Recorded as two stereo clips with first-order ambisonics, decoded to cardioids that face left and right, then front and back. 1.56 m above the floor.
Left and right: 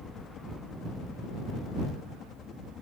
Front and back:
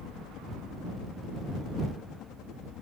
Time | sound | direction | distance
0.0 | a helicopter | 35° left | ?